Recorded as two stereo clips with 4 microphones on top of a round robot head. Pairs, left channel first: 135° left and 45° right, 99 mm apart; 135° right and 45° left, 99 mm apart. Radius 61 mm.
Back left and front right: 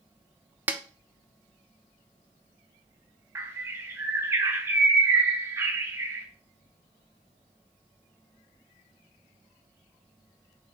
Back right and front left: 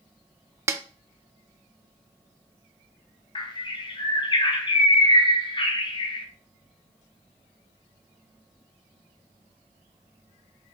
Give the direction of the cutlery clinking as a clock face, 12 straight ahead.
No cutlery clinking in this recording.